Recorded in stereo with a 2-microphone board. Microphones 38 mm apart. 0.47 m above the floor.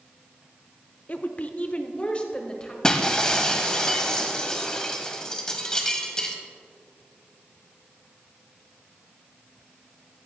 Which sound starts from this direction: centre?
Breaking glass, at 2.8 s.